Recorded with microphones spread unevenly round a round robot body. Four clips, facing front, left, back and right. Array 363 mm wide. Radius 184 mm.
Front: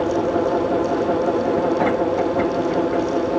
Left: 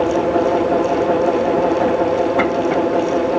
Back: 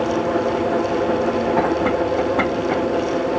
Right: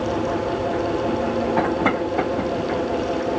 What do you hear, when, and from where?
Only background noise.